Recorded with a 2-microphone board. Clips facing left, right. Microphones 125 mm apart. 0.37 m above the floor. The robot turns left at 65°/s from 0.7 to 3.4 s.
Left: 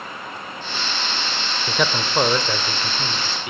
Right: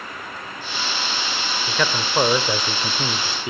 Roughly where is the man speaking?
Centre.